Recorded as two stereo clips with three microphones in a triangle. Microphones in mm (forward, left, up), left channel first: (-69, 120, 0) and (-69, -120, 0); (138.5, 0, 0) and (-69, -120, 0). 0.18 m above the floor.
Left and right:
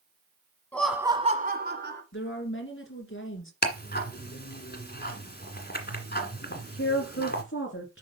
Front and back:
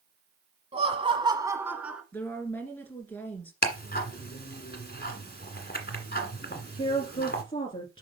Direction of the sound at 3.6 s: 60° left.